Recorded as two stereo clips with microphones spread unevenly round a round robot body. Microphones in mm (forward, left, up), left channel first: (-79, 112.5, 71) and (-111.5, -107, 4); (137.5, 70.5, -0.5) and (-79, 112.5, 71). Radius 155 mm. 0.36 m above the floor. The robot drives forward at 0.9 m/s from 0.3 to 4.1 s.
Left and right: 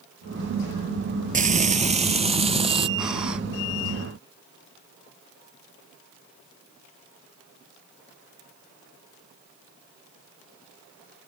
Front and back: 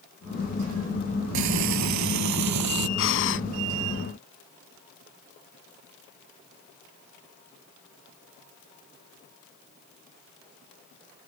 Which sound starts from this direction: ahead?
Breathing, at 3.0 s.